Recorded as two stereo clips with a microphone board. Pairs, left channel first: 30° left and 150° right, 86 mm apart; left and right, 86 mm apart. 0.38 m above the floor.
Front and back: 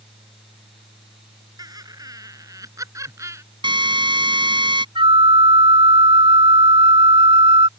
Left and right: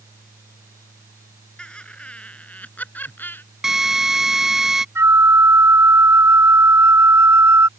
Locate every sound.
1.6 s laughter: 170° left; by 3.4 s 155° left
3.6 s a drill: 175° right
5.0 s a flute: 150° right